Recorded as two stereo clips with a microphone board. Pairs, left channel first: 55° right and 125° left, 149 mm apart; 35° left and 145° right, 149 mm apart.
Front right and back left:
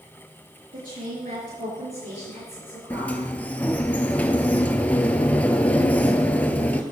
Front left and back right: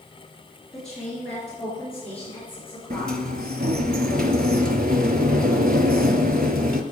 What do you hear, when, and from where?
0.7 s a woman speaking: 120° left, 3.5 m; by 3.1 s 110° left, 4.5 m
2.9 s a sliding door: 135° right, 0.6 m